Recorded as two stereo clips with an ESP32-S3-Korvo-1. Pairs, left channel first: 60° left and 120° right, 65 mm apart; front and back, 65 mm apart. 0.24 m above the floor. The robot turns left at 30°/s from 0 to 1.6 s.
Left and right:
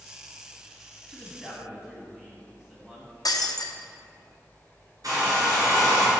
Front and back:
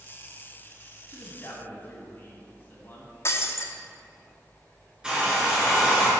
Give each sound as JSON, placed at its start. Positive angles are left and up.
{"t": 1.1, "sound": "a man speaking", "azimuth_deg": -30, "distance_m": 2.0}
{"t": 3.2, "sound": "breaking glass", "azimuth_deg": 45, "distance_m": 0.9}
{"t": 5.0, "sound": "a hair dryer", "azimuth_deg": -105, "distance_m": 2.5}